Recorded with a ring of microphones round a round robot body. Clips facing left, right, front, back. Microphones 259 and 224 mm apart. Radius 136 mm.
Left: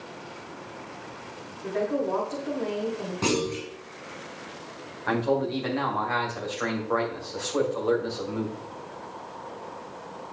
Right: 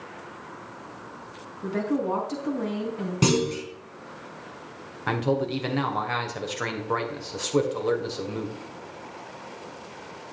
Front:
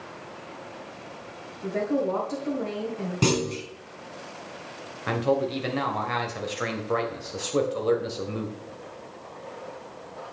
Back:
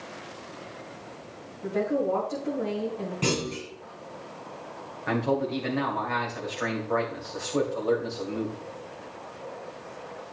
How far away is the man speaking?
About 2.5 m.